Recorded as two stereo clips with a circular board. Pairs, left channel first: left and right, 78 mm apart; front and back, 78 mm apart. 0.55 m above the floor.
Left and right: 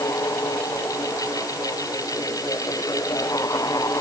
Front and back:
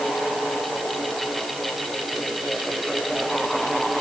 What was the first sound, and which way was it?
Only background noise.